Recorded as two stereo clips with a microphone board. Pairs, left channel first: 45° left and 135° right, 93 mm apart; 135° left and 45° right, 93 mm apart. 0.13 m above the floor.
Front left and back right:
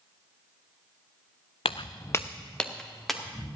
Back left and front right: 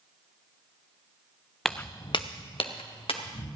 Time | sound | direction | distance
1.6 | footsteps | 45° left | 0.6 m